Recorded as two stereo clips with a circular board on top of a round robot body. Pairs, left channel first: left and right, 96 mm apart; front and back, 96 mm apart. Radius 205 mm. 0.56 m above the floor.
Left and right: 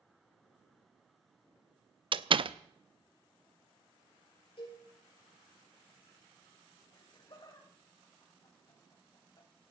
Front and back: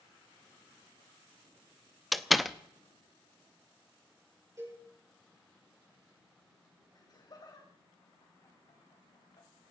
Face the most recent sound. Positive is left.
turn(degrees=45)